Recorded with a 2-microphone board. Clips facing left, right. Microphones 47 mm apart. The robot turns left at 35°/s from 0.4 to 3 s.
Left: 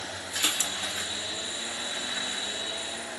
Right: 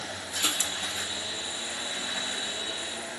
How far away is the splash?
About 1.0 m.